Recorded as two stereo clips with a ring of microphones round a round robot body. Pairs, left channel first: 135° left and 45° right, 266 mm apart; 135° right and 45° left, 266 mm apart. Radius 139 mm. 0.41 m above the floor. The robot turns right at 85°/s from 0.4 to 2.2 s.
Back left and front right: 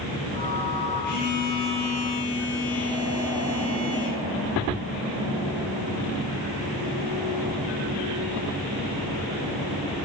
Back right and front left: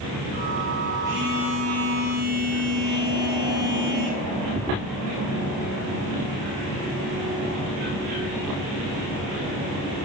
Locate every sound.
1.1 s a phone buzzing: 120° left, 4 m; by 4.2 s 140° right, 4 m